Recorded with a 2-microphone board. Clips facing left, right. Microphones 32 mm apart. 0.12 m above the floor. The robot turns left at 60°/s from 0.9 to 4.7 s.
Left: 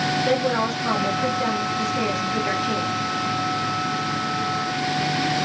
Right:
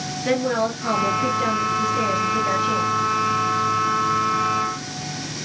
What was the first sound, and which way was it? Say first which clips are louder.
A woman speaking: right 5 dB; 130° right.